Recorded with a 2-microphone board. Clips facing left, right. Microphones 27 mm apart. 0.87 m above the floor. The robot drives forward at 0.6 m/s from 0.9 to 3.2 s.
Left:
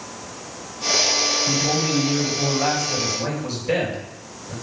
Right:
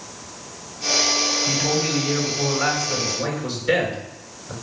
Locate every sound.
1.5 s a man speaking: 75° right (ahead or behind), 3 m; by 4.5 s 70° right (ahead or behind), 3.5 m